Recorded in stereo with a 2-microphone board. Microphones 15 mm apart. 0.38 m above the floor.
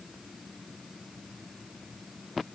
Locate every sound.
Only background noise.